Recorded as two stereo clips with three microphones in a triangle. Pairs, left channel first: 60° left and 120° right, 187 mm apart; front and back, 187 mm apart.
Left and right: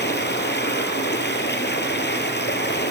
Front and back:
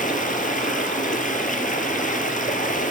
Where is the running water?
45° left, 3 m.